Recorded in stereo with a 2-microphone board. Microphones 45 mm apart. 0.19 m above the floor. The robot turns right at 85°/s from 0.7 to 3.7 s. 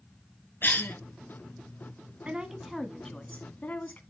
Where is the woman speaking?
45° right, 1.3 m; by 4.0 s 75° left, 1.3 m.